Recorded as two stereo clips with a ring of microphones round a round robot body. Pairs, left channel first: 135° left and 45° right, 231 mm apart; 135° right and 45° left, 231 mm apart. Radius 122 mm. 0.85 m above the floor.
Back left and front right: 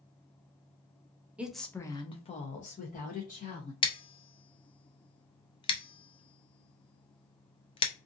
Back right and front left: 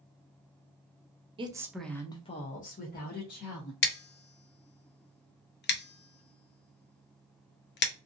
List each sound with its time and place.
1.4 s a woman speaking: 30° left, 0.5 m; by 3.7 s 175° right, 1.2 m
3.8 s scissors: 160° right, 0.6 m